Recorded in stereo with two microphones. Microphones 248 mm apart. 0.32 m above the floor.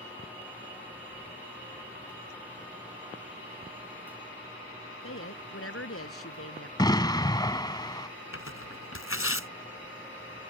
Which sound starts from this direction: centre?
An explosion, at 6.8 s.